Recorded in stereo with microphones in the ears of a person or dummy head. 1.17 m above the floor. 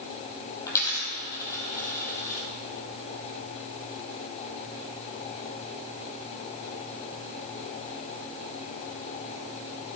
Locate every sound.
0.7 s a dropped coin: 15° left (ahead or behind), 2.5 m